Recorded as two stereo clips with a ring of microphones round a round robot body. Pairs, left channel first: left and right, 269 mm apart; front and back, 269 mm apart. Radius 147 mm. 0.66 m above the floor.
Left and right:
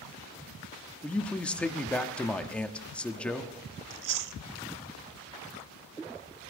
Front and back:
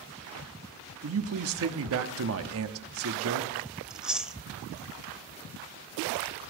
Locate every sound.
1.0 s a man speaking: 175° left, 1.1 m
3.9 s chewing: 95° right, 0.7 m